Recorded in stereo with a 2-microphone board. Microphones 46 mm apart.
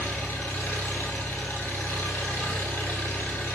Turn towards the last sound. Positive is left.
turn(degrees=65)  # may be behind; listen again after turning